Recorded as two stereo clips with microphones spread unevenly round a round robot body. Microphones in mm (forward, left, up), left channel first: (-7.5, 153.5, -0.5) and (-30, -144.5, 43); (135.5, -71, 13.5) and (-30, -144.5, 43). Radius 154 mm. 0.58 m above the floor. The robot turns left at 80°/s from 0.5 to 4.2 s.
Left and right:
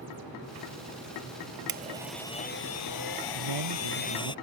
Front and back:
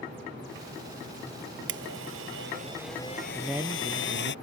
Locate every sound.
1.7 s a blender: 150° right; by 4.3 s 10° left
3.4 s a man speaking: 60° right; by 4.3 s 125° right